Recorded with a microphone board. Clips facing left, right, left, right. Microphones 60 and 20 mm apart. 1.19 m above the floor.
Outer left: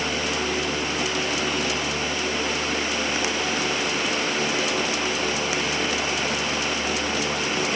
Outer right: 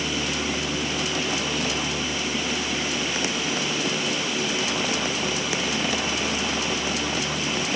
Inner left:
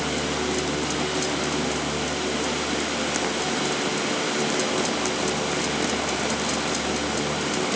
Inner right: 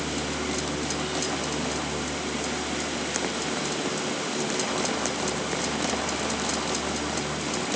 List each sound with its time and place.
Only background noise.